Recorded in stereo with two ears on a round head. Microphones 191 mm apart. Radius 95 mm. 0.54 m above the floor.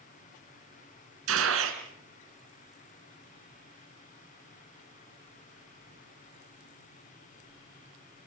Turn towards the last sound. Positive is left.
turn(degrees=-70)  # may be behind; listen again after turning